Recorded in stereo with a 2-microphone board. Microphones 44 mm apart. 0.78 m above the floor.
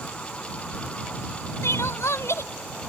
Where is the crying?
80° left.